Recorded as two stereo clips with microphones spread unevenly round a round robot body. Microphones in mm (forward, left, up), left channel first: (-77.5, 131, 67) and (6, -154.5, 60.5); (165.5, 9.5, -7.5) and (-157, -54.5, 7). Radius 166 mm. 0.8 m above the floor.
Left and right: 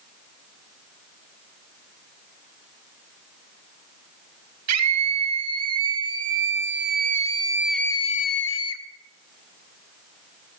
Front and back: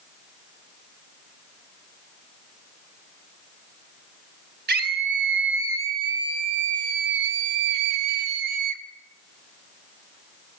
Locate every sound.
4.7 s a scream: 105° right, 4.5 m; by 8.8 s 140° left, 1.7 m